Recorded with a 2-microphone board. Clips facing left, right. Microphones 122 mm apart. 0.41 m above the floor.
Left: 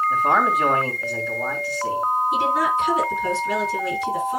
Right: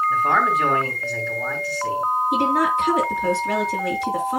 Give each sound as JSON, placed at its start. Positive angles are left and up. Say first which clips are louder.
{"t": 0.1, "sound": "a man speaking", "louder": "left 2 dB", "side_deg": 15, "distance_m": 3.0}
{"t": 2.3, "sound": "a woman speaking", "louder": "right 1 dB", "side_deg": -65, "distance_m": 5.5}